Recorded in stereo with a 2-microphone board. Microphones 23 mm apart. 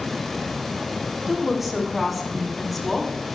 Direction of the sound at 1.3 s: 20° right (ahead or behind).